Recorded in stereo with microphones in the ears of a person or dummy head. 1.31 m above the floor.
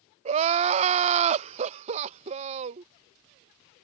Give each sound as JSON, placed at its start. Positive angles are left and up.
{"t": 0.2, "sound": "crying", "side_deg": -35}